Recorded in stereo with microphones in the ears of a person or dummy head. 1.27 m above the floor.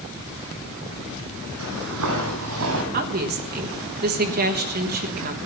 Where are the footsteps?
70° right (ahead or behind), 4 m; by 2.8 s 65° right (ahead or behind), 2.5 m.